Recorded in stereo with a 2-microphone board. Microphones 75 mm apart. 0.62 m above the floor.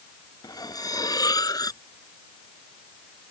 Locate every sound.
0.4 s cutlery clinking: 55° left (ahead or behind)